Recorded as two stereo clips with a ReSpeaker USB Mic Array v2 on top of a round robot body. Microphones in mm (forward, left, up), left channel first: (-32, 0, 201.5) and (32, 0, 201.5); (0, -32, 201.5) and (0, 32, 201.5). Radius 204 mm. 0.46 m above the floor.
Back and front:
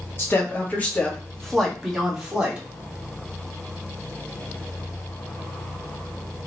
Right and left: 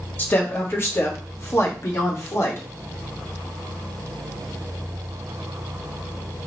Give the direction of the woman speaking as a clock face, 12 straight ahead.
5 o'clock.